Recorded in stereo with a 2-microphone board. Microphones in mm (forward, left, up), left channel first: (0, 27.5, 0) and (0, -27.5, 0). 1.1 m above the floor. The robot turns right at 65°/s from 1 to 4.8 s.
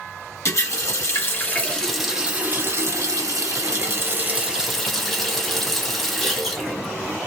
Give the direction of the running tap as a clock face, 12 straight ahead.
8 o'clock.